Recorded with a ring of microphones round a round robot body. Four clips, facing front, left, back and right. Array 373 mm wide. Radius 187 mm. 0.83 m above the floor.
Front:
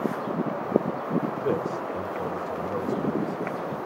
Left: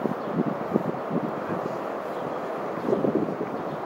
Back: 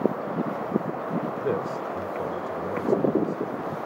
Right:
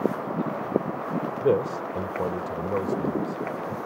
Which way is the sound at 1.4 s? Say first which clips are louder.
Right 6 dB, even; 95° right.